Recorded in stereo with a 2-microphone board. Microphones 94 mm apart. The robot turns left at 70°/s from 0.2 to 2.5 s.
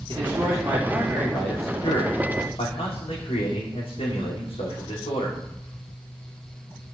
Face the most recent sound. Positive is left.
turn(degrees=80)